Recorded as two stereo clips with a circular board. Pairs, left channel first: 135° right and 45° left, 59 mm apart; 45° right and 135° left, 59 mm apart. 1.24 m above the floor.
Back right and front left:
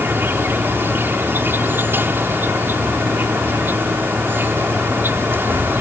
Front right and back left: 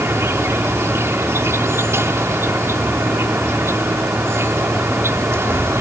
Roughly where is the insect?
Left.